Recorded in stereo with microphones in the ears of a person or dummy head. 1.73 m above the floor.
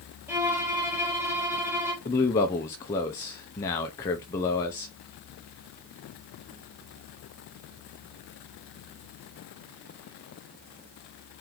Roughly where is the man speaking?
Centre.